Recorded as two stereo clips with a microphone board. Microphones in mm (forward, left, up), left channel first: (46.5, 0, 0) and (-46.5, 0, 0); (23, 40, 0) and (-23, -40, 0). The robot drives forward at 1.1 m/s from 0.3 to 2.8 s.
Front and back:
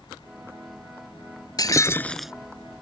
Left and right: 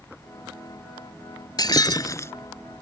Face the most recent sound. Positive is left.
turn(degrees=145)